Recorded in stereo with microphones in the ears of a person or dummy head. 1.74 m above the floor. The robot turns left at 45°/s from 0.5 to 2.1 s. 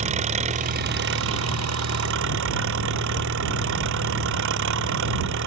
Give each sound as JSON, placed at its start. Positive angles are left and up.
{"t": 0.0, "sound": "an engine running", "azimuth_deg": -35}